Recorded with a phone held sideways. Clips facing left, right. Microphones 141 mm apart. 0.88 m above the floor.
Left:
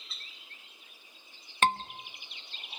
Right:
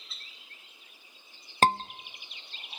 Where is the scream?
35° right (ahead or behind), 0.9 m.